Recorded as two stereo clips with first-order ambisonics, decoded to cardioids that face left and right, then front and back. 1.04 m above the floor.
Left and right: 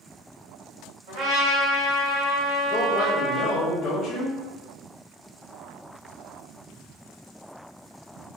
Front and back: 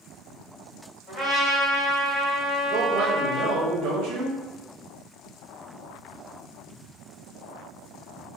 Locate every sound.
1.1 s a trumpet: 75° right, 1.4 m
2.7 s a man speaking: 155° left, 0.8 m